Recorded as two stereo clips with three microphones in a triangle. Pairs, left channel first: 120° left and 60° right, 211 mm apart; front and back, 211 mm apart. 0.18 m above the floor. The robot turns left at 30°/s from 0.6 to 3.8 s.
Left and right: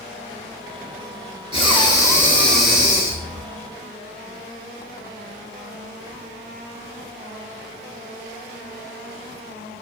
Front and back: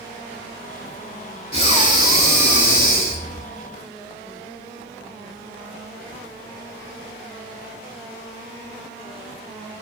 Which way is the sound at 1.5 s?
65° left.